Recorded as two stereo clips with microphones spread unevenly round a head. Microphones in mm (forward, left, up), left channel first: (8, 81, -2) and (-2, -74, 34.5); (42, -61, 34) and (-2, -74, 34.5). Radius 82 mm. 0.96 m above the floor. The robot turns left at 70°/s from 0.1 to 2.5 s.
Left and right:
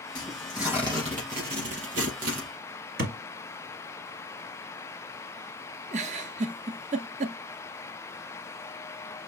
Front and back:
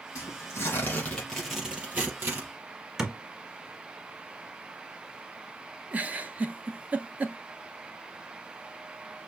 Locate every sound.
0.1 s tearing paper: 20° left, 4.5 m; by 2.5 s 140° right, 4.5 m
3.0 s a thud: 85° right, 1.8 m
5.9 s a giggle: 115° right, 0.7 m